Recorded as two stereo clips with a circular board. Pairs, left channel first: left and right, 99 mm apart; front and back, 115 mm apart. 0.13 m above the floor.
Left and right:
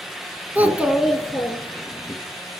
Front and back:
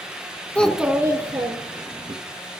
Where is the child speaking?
60° right, 0.7 m; by 2.1 s 165° left, 1.4 m.